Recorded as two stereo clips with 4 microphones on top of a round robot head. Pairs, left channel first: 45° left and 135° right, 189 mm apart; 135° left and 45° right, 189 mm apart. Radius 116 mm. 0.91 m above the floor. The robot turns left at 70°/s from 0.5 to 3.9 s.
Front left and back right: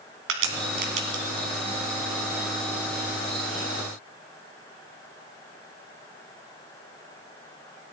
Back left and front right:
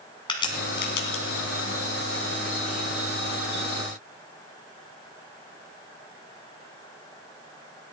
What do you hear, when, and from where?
0.3 s a crack: 160° right, 1.7 m; by 1.5 s 135° left, 1.7 m